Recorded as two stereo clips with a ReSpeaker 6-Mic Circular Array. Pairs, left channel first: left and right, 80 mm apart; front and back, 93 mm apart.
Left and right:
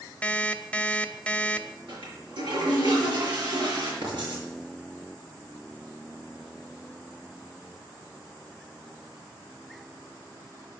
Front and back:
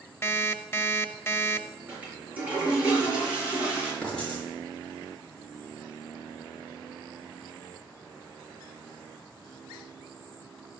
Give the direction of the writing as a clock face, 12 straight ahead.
3 o'clock.